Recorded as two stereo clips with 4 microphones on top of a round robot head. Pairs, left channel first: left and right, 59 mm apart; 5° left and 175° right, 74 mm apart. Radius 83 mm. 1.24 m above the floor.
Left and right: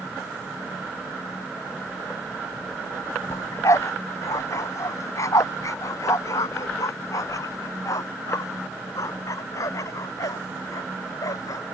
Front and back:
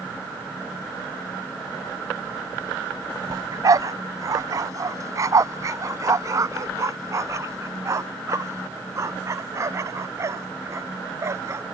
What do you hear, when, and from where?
3.3 s a dog barking: 140° left; by 11.6 s 130° left